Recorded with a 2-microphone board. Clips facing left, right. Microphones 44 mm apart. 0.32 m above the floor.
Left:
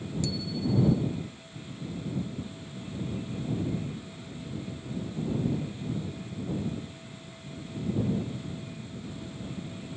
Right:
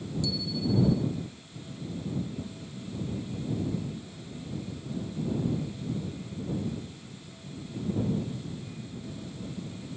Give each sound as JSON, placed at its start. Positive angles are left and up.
{"t": 0.2, "sound": "a bicycle bell", "side_deg": 50}